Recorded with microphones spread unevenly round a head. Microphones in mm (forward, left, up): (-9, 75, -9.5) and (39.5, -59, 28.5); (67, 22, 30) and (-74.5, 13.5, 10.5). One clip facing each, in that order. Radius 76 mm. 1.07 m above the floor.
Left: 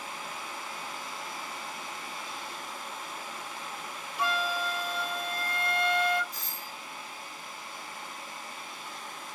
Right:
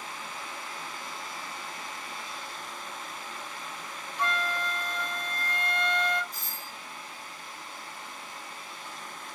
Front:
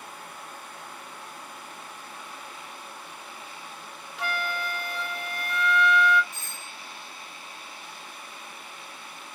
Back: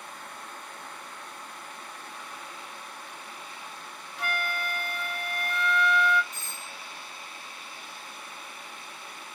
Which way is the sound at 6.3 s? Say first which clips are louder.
Even, even; 30° right.